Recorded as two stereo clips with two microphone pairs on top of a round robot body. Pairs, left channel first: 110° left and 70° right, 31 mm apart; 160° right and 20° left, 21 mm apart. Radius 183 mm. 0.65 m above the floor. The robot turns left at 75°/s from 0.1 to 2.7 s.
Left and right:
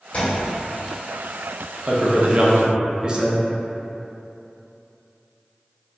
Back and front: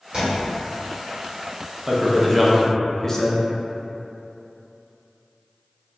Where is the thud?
65° left, 1.0 m; by 0.5 s 40° left, 1.0 m.